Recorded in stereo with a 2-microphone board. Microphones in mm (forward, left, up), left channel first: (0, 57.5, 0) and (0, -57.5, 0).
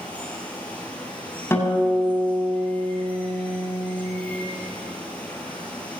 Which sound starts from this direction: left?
A guitar, at 1.5 s.